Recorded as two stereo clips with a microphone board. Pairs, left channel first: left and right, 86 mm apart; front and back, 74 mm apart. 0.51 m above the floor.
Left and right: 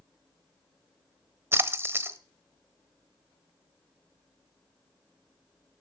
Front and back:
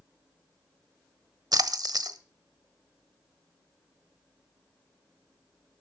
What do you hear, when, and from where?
1.5 s a splash: 150° right, 1.0 m